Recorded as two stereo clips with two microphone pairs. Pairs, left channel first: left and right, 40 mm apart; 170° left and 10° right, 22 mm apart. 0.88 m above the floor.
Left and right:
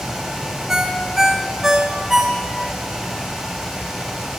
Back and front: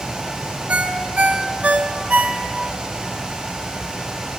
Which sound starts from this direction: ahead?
A ringtone, at 0.7 s.